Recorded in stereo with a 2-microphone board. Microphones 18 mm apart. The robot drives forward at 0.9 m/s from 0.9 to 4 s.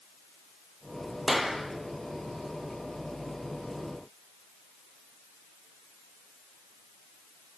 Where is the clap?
15° right (ahead or behind), 3.5 m.